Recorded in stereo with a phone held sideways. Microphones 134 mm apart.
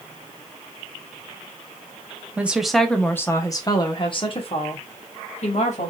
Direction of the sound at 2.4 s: 10° right (ahead or behind).